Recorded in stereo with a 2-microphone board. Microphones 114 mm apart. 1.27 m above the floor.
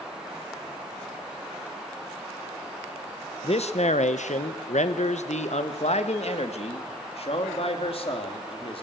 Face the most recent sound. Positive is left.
turn(degrees=50)  # may be behind; listen again after turning